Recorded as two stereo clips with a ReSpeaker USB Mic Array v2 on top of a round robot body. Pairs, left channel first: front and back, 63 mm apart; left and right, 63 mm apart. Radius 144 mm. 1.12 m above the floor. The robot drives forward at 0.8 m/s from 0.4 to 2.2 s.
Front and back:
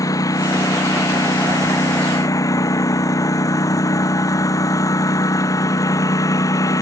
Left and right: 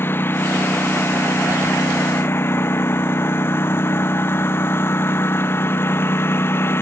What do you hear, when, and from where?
0.0 s a lawn mower: 35° left